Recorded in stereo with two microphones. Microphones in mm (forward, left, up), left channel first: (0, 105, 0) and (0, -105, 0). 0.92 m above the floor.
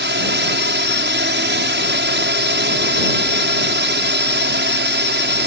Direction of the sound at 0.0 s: 60° right (ahead or behind).